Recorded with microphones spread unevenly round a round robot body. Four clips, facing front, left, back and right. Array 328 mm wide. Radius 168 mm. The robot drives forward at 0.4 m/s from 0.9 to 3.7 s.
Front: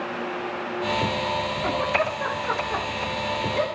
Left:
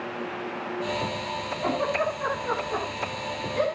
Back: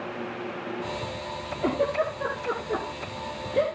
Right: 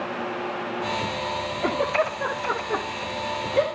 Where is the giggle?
155° right, 7.5 m; by 3.6 s 160° right, 8.5 m.